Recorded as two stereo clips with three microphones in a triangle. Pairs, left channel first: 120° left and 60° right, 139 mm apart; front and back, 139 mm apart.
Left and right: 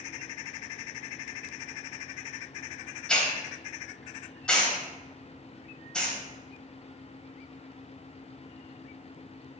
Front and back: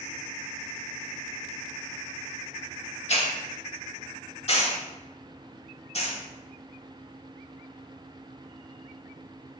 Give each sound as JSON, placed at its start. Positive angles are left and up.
{"t": 3.1, "sound": "a hiss", "azimuth_deg": 35, "distance_m": 0.9}